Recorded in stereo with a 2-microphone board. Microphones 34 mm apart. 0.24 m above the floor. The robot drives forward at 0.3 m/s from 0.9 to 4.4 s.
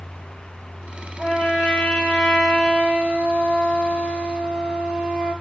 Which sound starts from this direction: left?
A trumpet, at 1.2 s.